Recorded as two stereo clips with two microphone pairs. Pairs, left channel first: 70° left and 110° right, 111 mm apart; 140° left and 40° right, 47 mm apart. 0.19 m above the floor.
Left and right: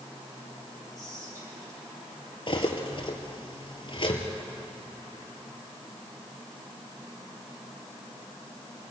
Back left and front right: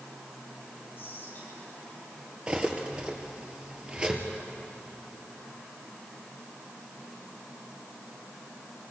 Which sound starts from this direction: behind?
Whispering, at 1.0 s.